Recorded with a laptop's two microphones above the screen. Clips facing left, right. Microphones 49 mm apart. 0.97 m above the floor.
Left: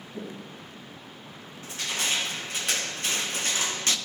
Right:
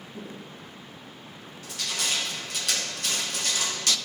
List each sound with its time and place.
0.1 s footsteps: 60° left (ahead or behind), 2.5 m; by 1.5 s 65° left (ahead or behind), 3 m
1.6 s crushing: 30° left (ahead or behind), 0.8 m